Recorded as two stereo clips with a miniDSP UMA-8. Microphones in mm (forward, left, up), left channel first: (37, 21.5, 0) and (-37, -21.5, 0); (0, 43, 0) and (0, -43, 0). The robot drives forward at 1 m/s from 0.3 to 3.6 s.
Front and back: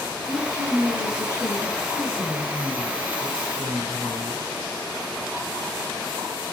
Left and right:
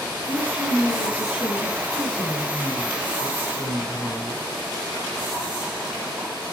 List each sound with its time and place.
0.3 s a woman speaking: 80° left, 9.5 m; by 4.5 s 100° left, 9.5 m